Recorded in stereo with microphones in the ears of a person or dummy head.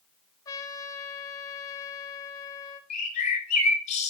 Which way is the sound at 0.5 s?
20° left (ahead or behind).